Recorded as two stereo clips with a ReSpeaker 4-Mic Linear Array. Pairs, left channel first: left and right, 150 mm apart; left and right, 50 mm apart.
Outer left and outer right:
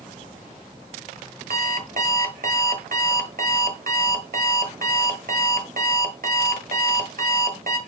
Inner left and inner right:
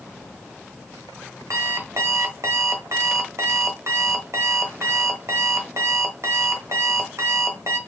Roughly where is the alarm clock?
Right.